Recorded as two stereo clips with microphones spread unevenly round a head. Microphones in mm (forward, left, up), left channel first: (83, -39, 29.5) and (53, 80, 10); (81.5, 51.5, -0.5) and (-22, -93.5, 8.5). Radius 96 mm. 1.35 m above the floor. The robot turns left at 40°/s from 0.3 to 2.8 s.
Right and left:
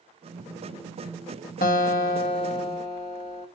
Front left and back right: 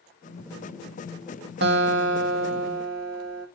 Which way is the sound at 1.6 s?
105° right.